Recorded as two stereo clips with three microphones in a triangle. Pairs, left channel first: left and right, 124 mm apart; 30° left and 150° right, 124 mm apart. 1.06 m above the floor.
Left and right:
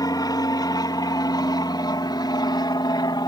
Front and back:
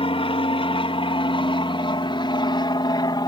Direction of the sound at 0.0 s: 45° left.